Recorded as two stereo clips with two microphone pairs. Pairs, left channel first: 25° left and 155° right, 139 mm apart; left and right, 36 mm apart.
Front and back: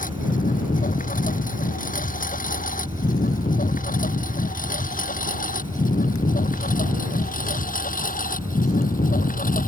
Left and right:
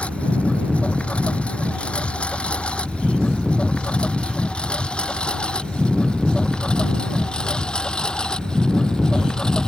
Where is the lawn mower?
35° left; by 9.7 s 20° left.